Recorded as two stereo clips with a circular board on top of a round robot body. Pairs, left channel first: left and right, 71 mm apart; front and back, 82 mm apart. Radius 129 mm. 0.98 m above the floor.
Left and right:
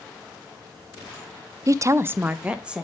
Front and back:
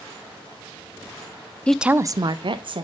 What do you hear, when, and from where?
1.7 s a woman speaking: 70° right, 0.5 m; by 2.8 s 170° right, 1.2 m